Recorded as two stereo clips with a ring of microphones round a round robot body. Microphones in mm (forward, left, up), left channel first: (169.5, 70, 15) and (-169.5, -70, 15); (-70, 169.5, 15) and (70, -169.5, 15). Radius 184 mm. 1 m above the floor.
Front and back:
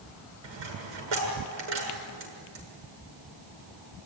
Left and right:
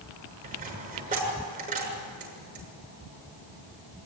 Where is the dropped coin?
140° right, 7 m.